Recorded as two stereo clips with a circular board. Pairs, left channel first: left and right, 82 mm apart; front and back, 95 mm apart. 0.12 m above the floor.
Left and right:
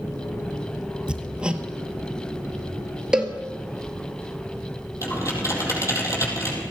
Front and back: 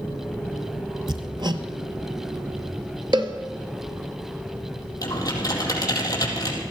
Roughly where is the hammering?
Behind.